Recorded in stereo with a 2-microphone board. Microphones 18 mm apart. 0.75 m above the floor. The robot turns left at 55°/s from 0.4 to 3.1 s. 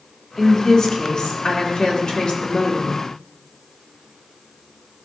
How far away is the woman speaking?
About 2.0 m.